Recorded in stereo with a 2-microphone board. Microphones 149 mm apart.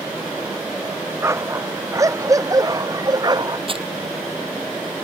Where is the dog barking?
20° right (ahead or behind); by 3.6 s 30° right (ahead or behind).